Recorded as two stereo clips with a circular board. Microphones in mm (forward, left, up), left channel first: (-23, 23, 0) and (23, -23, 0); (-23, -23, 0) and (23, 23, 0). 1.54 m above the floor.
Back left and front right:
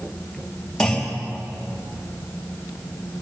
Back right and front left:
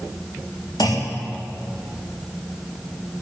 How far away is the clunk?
About 3.5 m.